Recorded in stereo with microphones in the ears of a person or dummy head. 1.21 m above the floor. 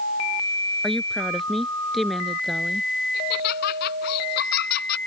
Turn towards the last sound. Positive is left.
turn(degrees=55)  # may be behind; listen again after turning